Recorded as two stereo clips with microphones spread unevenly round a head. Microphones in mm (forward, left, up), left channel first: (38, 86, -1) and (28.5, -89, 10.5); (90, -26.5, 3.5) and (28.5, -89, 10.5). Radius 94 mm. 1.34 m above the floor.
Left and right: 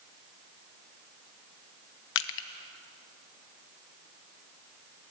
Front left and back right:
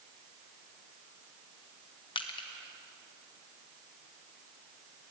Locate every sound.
2.1 s crushing: 95° left, 0.9 m